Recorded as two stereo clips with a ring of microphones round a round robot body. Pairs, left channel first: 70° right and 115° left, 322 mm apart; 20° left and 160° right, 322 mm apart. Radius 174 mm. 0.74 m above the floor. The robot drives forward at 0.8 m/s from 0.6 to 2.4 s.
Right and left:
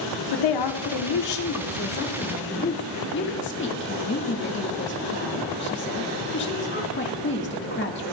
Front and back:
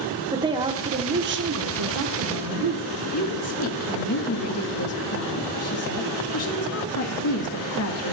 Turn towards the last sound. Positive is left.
turn(degrees=-15)